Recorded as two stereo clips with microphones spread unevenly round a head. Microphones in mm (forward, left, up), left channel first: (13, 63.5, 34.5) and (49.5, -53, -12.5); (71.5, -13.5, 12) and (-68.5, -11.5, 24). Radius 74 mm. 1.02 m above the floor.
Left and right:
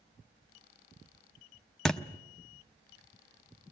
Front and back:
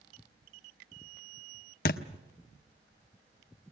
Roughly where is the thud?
Ahead left.